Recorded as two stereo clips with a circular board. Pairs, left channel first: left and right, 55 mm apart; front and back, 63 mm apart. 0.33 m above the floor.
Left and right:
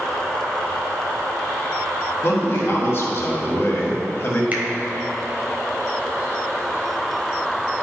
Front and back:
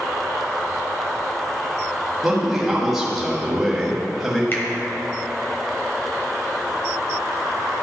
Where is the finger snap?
40° right, 1.3 m.